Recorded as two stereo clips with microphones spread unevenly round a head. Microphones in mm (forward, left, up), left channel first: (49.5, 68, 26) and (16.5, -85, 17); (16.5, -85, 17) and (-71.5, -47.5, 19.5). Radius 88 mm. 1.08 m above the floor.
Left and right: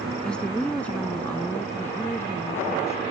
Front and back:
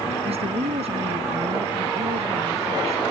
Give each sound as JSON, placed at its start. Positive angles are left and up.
{"t": 0.2, "sound": "a woman speaking", "azimuth_deg": 165}